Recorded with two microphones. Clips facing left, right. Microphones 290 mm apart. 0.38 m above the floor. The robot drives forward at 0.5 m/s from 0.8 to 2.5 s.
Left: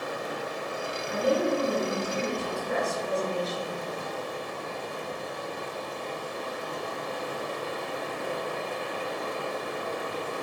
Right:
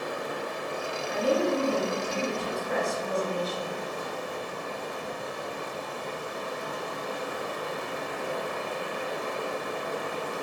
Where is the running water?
65° right (ahead or behind), 0.8 m; by 10.4 s 55° right (ahead or behind), 0.9 m.